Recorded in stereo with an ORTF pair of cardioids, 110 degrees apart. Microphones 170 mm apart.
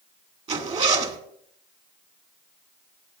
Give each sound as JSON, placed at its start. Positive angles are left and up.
{"t": 0.5, "sound": "a zipper", "azimuth_deg": -40, "distance_m": 1.9}